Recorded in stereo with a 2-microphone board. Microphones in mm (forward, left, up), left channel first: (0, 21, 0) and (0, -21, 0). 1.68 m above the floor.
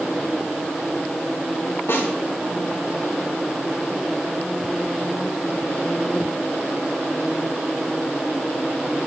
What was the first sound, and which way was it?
A snare drum, 70° left (ahead or behind).